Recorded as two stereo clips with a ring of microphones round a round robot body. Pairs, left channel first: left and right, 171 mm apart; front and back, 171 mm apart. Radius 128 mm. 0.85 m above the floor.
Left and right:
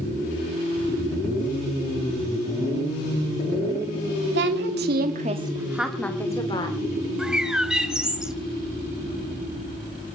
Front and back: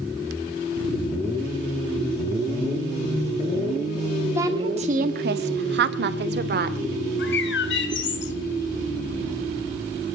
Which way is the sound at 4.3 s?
100° right.